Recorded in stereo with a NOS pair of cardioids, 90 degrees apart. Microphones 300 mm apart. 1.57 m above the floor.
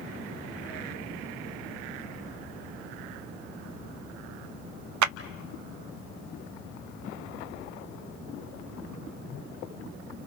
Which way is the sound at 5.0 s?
70° right.